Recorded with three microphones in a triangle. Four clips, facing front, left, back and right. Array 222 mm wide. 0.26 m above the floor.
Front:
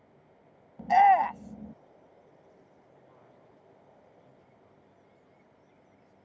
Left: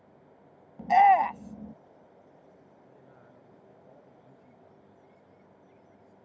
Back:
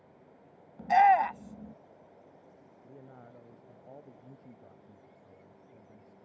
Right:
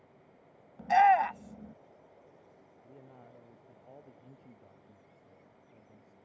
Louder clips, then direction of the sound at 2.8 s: Right 5 dB, back 6 dB; 160° right.